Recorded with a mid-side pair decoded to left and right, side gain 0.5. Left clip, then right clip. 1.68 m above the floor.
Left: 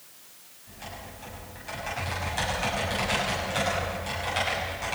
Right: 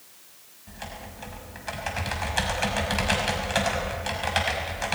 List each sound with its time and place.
0.7 s typing on a keyboard: 50° right, 6 m